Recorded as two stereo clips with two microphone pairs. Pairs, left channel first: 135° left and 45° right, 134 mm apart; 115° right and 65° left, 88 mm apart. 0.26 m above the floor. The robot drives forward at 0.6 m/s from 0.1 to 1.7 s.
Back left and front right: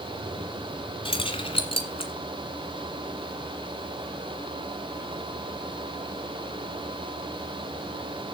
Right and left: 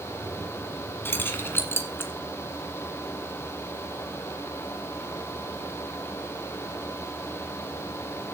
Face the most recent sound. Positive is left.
turn(degrees=180)